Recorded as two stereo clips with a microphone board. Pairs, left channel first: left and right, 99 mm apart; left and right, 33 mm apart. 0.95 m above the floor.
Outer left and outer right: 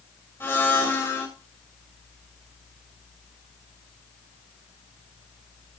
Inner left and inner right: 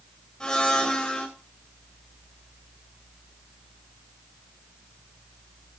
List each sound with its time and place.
0.4 s a blender: 25° left (ahead or behind), 2.5 m